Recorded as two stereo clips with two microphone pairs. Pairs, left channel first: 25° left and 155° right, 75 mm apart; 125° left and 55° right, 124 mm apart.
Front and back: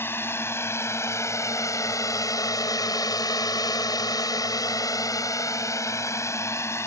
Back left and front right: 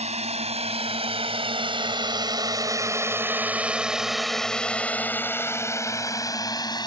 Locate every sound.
0.0 s a drone: 35° right; by 6.9 s 75° left